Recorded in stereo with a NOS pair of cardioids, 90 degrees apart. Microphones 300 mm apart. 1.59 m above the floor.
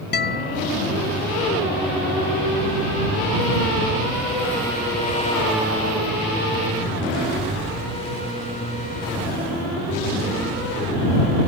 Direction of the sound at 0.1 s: 35° left.